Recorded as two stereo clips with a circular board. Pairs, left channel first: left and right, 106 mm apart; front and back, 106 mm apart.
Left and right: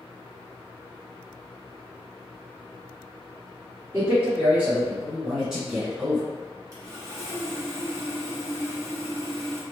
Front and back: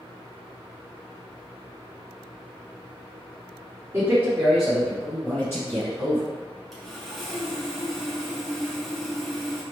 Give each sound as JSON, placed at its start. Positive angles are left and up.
{"t": 3.9, "sound": "a man speaking", "azimuth_deg": -135, "distance_m": 1.7}
{"t": 6.7, "sound": "sawing", "azimuth_deg": -90, "distance_m": 1.2}